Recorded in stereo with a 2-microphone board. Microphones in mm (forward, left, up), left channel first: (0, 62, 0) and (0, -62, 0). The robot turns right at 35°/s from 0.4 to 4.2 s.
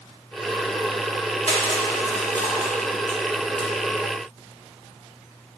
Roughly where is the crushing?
Left.